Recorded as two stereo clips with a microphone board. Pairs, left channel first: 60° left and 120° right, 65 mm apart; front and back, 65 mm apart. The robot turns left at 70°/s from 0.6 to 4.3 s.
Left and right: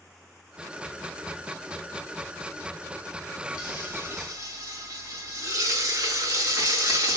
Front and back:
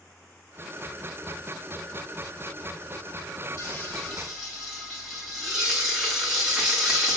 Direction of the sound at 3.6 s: 45° right.